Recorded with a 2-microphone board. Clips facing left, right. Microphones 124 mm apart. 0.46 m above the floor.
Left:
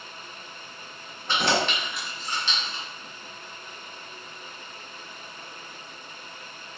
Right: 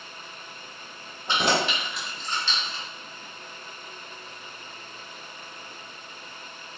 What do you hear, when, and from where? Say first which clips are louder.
1.3 s keys jangling: even; 20° right (ahead or behind), 1.1 m; by 2.8 s 30° left (ahead or behind), 1.1 m